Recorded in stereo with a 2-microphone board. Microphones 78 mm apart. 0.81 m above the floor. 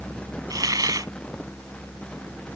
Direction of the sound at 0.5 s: 55° right (ahead or behind).